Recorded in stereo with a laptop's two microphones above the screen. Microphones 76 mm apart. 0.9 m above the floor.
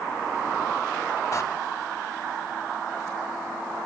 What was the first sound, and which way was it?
A door slam, 50° left (ahead or behind).